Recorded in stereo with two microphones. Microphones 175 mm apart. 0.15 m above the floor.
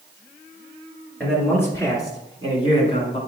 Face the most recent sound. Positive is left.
turn(degrees=35)  # may be behind; listen again after turning